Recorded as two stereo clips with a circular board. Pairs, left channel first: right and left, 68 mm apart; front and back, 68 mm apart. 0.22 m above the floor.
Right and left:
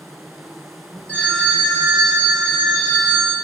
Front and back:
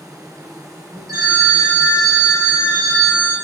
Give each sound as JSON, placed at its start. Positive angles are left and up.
{"t": 0.0, "sound": "an insect", "azimuth_deg": 180, "distance_m": 1.3}
{"t": 1.1, "sound": "a phone ringing", "azimuth_deg": -160, "distance_m": 3.0}